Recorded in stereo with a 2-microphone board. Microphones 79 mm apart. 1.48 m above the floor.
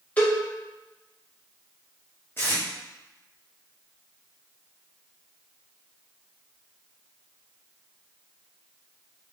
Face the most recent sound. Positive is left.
turn(degrees=30)  # may be behind; listen again after turning